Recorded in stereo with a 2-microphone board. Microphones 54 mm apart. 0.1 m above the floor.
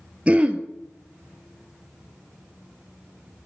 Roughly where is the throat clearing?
Right.